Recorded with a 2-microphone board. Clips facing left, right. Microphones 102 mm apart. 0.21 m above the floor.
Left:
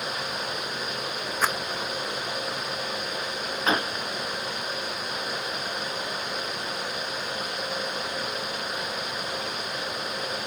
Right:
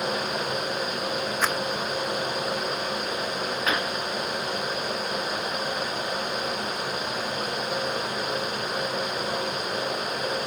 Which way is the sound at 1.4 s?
10° left (ahead or behind).